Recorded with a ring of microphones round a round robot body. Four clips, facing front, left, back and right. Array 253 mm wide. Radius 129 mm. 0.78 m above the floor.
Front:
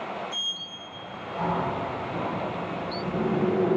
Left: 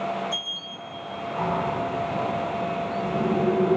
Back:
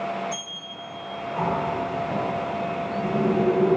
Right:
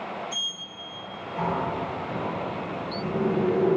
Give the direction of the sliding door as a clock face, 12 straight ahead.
5 o'clock.